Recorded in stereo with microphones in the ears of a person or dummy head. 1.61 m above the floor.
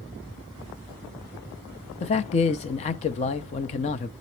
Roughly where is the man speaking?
Left.